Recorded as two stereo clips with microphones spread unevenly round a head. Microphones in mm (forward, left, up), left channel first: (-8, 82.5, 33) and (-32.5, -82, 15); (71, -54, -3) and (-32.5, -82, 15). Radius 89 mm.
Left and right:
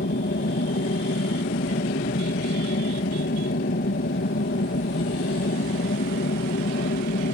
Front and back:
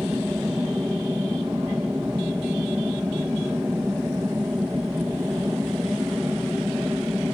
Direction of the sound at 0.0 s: 115° left.